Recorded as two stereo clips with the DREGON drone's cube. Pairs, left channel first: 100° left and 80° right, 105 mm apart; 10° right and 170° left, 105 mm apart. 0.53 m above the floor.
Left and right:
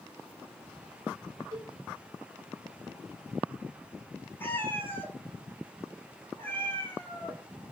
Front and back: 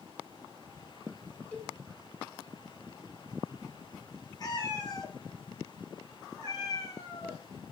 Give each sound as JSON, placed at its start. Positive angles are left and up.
{"t": 1.5, "sound": "a cowbell", "azimuth_deg": -85, "distance_m": 1.1}
{"t": 4.4, "sound": "a cat meowing", "azimuth_deg": 30, "distance_m": 1.0}